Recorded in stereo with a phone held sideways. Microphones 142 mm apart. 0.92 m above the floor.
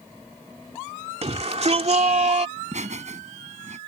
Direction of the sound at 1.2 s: 50° right (ahead or behind).